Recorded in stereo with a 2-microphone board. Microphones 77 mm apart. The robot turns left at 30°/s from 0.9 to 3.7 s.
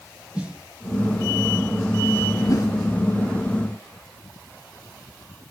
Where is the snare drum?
15° right (ahead or behind), 2.5 m.